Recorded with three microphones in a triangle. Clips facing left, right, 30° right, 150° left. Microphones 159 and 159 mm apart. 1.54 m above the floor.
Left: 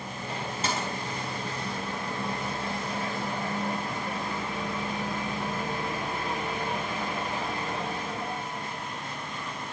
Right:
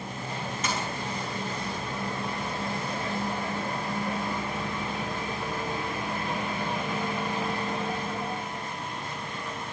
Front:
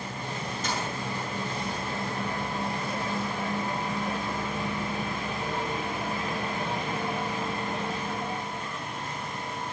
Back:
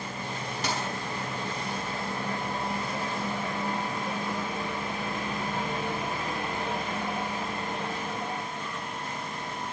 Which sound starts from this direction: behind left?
A dropped coin, at 0.6 s.